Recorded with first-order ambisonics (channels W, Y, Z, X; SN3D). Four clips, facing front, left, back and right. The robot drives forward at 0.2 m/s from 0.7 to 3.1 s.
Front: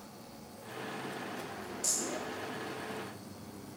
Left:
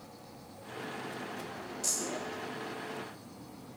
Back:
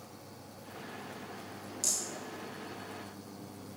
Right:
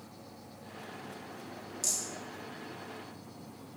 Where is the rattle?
150° right, 1.4 m.